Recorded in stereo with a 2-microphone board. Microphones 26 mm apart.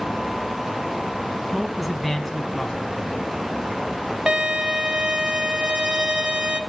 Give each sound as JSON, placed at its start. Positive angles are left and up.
{"t": 1.5, "sound": "a man speaking", "side_deg": -15, "distance_m": 1.6}
{"t": 4.3, "sound": "a violin", "side_deg": -40, "distance_m": 1.1}